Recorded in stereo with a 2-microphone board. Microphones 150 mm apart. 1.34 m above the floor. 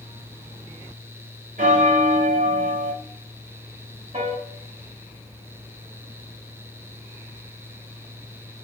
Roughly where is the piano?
Right.